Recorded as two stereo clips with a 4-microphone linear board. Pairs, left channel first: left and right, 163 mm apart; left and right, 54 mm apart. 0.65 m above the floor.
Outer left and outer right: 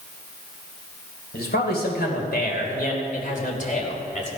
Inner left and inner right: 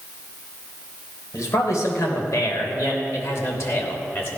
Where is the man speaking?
75° left (ahead or behind), 3.5 m; by 4.3 s 40° left (ahead or behind), 3 m.